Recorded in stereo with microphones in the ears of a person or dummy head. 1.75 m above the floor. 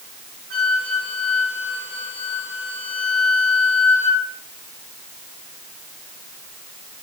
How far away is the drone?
I don't hear a drone.